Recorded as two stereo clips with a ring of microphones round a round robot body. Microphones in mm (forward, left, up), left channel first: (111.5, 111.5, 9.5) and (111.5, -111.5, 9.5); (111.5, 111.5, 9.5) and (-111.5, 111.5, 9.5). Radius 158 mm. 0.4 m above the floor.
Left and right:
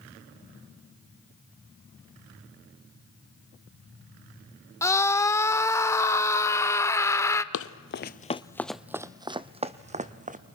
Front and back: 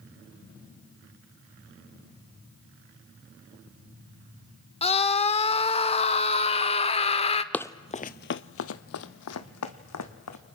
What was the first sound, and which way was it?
A scream, 25° left.